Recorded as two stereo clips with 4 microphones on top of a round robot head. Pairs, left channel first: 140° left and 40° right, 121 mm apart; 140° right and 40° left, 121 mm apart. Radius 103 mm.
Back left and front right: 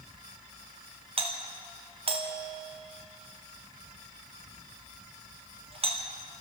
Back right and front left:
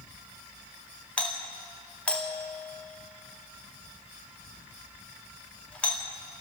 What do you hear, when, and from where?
1.2 s a doorbell: 65° right, 2.5 m